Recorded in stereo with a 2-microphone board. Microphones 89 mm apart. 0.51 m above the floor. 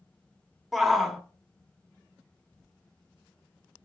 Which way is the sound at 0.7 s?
Centre (ahead or behind).